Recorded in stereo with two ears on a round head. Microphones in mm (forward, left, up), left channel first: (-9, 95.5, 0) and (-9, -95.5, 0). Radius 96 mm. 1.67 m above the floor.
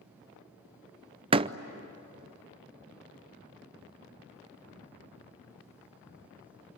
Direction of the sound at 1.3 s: 25° right (ahead or behind).